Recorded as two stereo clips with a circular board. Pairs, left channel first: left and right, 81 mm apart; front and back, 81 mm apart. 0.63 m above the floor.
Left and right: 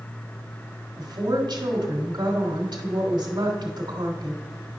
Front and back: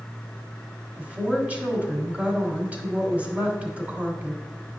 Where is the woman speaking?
105° right, 1.7 m.